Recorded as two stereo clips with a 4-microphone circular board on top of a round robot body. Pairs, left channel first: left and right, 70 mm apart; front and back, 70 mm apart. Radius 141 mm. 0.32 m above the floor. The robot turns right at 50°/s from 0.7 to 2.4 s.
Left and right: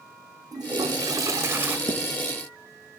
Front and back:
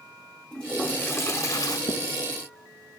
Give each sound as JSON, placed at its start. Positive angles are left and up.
{"t": 0.5, "sound": "a toilet flushing", "azimuth_deg": -80, "distance_m": 1.1}
{"t": 1.9, "sound": "writing", "azimuth_deg": 40, "distance_m": 1.5}